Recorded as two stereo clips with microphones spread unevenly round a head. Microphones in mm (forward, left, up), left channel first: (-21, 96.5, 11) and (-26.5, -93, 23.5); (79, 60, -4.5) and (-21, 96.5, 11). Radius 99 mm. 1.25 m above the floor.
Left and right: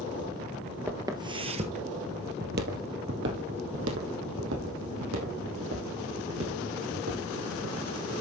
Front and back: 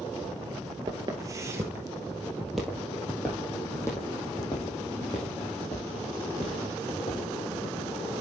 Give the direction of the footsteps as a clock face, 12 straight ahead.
5 o'clock.